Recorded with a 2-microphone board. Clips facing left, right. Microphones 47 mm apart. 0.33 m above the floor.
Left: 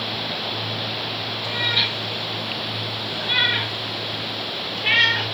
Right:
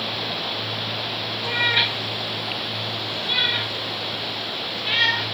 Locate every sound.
1.4 s a cat meowing: 30° right (ahead or behind), 2.5 m; by 5.3 s 80° left, 3.5 m